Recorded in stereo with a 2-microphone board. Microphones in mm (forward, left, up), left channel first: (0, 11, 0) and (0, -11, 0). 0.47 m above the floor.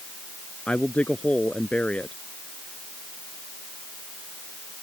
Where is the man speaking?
70° left (ahead or behind).